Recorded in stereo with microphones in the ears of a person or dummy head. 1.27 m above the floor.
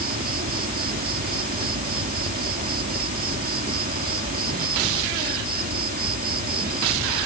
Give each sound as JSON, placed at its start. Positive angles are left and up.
{"t": 0.0, "sound": "an insect", "side_deg": -45}